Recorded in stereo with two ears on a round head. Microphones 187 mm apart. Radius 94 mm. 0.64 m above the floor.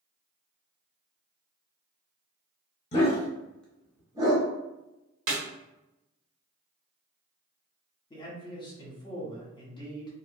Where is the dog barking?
35° left (ahead or behind), 1.0 m; by 4.5 s 25° right (ahead or behind), 1.1 m.